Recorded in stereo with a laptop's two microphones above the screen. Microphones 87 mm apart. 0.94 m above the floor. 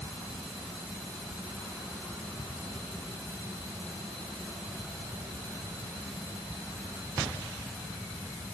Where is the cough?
I don't hear a cough.